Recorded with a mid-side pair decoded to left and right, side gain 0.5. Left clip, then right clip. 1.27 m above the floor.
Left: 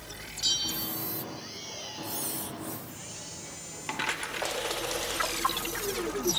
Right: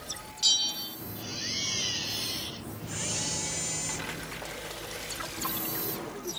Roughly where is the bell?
Ahead.